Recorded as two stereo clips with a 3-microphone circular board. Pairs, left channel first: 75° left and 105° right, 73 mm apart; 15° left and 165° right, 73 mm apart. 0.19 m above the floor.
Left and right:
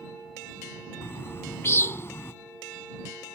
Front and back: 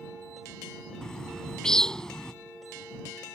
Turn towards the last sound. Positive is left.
turn(degrees=90)